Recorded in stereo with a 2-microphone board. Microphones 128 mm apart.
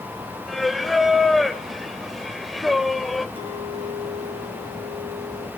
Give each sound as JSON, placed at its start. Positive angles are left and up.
{"t": 0.5, "sound": "singing", "side_deg": 0, "distance_m": 0.6}
{"t": 3.4, "sound": "a clink", "side_deg": -45, "distance_m": 3.5}